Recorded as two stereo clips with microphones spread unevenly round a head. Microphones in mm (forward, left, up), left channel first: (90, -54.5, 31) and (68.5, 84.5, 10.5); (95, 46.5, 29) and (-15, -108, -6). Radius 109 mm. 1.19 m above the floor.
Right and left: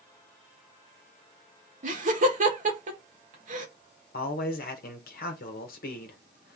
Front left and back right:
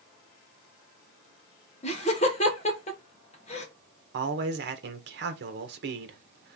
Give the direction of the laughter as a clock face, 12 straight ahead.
8 o'clock.